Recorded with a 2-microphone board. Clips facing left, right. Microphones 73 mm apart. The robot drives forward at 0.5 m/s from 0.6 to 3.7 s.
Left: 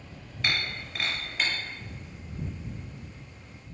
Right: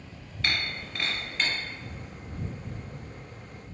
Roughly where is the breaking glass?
Centre.